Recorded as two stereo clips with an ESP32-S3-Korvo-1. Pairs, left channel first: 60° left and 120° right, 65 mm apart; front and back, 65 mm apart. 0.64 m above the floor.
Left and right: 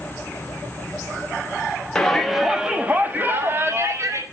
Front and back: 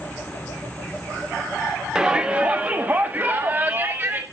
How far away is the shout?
About 1.1 m.